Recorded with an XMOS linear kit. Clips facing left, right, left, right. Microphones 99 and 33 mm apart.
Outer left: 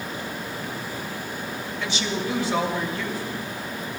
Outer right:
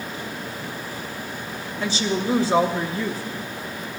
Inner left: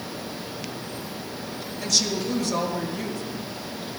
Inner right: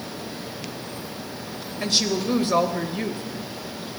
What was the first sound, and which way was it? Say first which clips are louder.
A woman speaking: outer right 5 dB, inner right 2 dB; 35° right (ahead or behind).